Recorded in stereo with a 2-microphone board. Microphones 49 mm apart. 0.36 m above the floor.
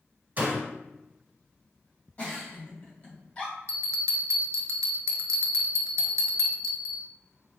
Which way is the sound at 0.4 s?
35° right (ahead or behind).